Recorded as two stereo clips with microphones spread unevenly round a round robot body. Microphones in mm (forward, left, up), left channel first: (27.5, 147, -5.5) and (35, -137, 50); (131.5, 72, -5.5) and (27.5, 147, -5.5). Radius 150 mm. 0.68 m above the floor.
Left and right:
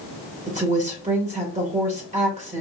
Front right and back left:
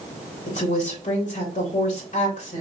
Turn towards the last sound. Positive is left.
turn(degrees=-20)